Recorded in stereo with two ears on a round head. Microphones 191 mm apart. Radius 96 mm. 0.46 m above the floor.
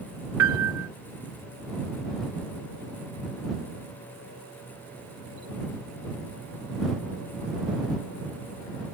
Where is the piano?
80° right.